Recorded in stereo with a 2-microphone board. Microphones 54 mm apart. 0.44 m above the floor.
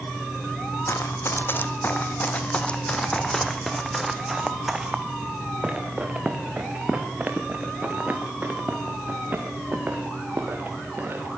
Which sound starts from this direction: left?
Running footsteps, at 0.9 s.